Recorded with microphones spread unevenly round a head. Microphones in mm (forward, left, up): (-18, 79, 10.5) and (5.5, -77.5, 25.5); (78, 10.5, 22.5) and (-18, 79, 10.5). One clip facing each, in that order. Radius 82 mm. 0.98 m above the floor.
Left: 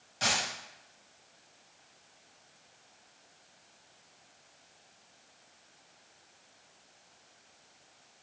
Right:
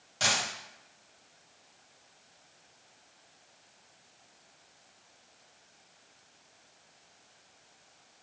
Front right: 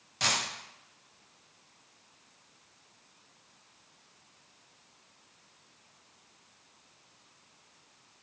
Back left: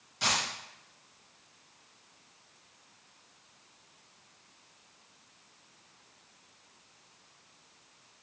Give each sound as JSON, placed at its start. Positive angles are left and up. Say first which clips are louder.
{"t": 0.2, "sound": "a dropped coin", "louder": "right 1 dB, back left 1 dB", "azimuth_deg": -50, "distance_m": 2.5}